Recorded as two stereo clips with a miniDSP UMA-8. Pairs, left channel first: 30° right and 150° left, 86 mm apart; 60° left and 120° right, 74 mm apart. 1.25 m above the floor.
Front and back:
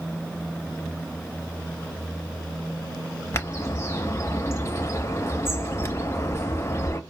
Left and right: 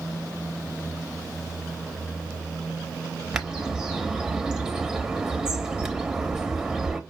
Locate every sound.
3.3 s a bird: 50° right, 0.7 m